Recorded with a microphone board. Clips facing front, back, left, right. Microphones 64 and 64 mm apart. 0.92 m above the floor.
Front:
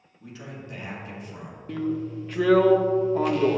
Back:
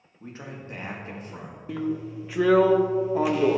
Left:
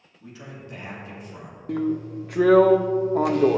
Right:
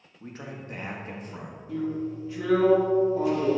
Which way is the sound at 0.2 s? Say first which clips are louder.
Back 1 dB, right 2 dB; 130° right.